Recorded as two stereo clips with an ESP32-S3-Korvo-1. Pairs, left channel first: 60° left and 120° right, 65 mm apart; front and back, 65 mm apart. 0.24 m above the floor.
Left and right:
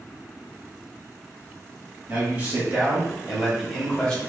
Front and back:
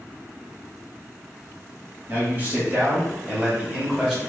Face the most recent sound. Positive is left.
turn(degrees=115)